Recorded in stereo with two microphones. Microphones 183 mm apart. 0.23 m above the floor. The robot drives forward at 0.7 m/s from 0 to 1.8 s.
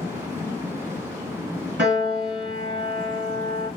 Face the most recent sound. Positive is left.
turn(degrees=-80)